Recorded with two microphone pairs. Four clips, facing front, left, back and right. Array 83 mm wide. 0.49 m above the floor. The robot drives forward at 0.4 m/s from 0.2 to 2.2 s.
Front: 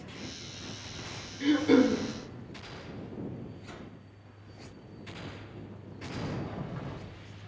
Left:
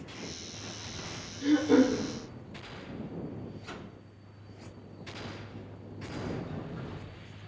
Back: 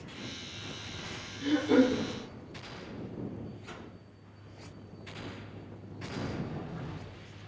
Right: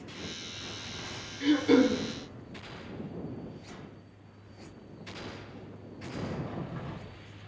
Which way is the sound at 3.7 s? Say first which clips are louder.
Left 3 dB, even; 110° left.